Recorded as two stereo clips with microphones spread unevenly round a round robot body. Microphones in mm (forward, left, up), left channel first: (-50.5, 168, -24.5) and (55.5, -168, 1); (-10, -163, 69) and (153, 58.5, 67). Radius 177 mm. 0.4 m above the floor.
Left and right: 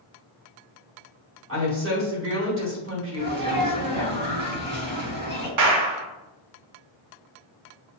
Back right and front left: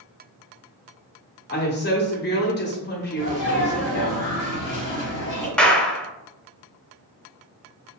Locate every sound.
1.5 s a woman speaking: 110° right, 1.6 m
3.2 s a sneeze: 130° right, 1.8 m
5.6 s a clap: 40° right, 1.0 m